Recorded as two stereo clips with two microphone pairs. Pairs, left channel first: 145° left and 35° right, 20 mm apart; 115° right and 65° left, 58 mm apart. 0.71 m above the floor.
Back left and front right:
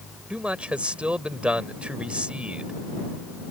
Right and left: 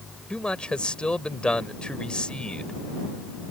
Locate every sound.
0.3 s a man speaking: 40° right